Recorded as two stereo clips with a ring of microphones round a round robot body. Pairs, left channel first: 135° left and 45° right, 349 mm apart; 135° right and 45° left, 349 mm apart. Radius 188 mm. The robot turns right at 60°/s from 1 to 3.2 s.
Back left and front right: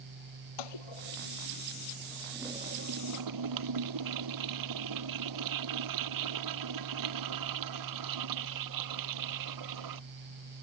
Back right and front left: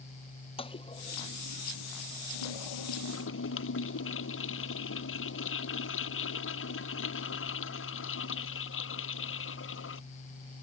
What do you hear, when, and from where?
0.6 s a toilet flushing: 150° left; by 10.0 s 80° right